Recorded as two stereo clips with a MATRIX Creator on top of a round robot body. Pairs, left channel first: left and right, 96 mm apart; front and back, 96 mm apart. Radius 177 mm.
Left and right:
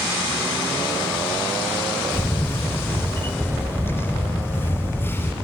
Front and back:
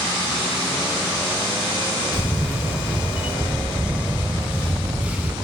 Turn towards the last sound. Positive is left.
turn(degrees=120)